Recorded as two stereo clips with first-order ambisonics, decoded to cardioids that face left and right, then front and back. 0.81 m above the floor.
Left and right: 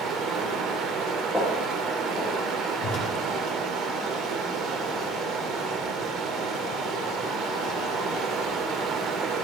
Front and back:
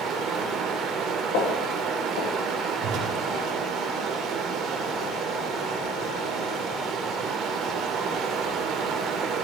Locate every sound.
0.0 s running water: 135° right, 1.4 m
1.3 s footsteps: straight ahead, 4.5 m
2.8 s a whoosh: 145° left, 2.5 m